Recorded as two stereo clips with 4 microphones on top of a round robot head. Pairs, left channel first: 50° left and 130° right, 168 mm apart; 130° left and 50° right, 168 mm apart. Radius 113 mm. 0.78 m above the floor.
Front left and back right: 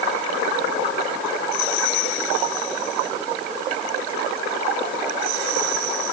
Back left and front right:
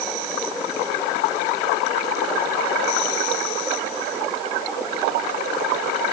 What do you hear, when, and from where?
Only background noise.